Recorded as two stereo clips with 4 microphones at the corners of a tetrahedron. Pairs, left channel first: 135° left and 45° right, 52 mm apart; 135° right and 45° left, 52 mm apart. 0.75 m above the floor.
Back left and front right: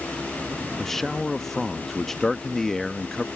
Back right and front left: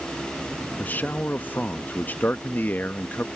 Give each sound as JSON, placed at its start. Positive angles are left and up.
{"t": 0.8, "sound": "a man speaking", "azimuth_deg": -145}